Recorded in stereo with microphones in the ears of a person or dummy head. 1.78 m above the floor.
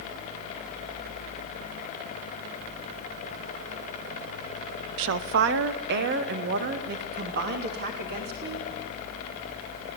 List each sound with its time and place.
5.0 s a woman speaking: 60° right (ahead or behind), 0.8 m; by 8.7 s 45° right (ahead or behind), 4 m